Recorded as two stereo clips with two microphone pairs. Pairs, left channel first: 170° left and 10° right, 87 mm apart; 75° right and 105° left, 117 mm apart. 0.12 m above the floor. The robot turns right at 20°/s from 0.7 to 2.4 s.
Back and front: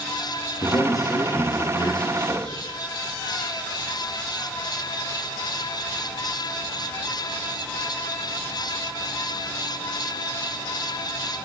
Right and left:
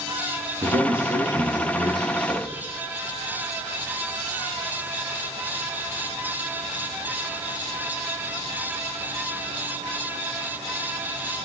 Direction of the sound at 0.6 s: 135° left.